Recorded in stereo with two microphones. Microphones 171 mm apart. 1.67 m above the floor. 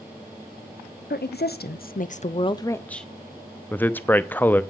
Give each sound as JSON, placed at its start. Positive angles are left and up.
{"t": 1.1, "sound": "a woman speaking", "side_deg": 90, "distance_m": 1.1}
{"t": 3.7, "sound": "a man speaking", "side_deg": 10, "distance_m": 0.6}